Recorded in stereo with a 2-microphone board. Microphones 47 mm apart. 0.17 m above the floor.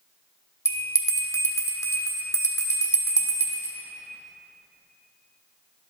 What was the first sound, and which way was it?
A bell, 80° left.